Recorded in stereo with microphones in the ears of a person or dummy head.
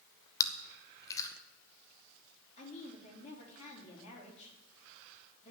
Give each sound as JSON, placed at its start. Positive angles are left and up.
{"t": 0.4, "sound": "chewing", "side_deg": 20, "distance_m": 1.1}
{"t": 2.6, "sound": "a woman speaking", "side_deg": 40, "distance_m": 3.5}